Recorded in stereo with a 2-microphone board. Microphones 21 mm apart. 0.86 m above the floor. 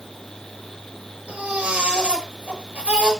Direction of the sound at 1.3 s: 75° right (ahead or behind).